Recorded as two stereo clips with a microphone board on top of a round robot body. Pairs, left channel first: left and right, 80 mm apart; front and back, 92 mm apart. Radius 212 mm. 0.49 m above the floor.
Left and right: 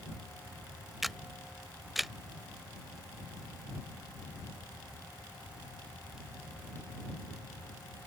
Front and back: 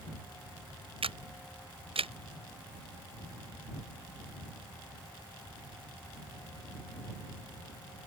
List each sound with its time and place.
1.0 s a camera shutter: straight behind